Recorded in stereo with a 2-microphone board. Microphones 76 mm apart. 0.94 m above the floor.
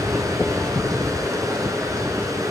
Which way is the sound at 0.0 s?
45° right (ahead or behind).